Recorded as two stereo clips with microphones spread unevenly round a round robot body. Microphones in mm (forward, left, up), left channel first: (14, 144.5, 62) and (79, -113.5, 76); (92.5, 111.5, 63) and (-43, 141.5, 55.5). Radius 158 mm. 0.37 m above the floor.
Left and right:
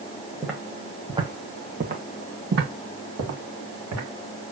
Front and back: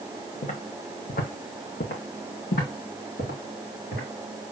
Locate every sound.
0.4 s footsteps: 15° left, 1.4 m; by 4.0 s 50° right, 2 m